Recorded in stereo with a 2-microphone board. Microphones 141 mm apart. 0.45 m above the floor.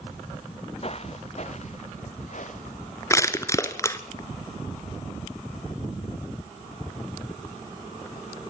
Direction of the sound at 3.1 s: 20° left (ahead or behind).